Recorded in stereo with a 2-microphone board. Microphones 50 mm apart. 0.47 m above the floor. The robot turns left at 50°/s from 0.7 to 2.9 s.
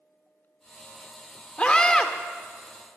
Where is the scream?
25° left (ahead or behind), 0.8 m; by 2.1 s 10° left (ahead or behind), 0.8 m.